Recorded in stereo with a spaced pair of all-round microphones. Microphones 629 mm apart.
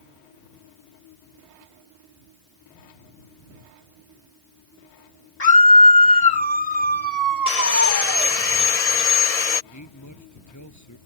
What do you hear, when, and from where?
5.4 s a scream: 80° left
7.5 s sawing: 70° left (ahead or behind)
9.7 s a man speaking: 25° left (ahead or behind)